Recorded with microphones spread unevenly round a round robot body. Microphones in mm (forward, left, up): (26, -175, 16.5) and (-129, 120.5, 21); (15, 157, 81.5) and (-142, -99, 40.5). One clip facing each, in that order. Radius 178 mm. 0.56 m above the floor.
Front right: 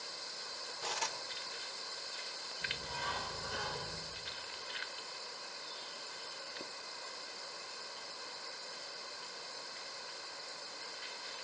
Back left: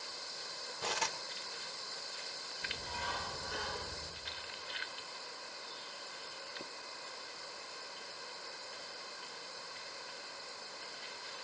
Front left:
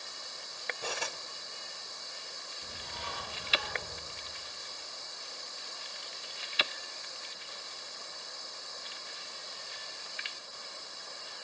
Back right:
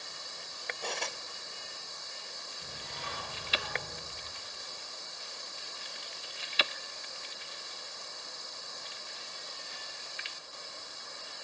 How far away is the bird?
About 8.5 m.